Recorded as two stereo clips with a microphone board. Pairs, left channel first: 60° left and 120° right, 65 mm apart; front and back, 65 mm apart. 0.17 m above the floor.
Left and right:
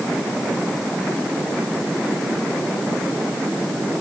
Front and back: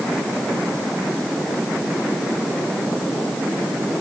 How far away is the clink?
I don't hear a clink.